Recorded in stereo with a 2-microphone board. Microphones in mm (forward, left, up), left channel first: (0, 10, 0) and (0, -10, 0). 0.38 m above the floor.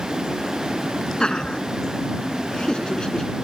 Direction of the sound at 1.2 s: 35° left (ahead or behind).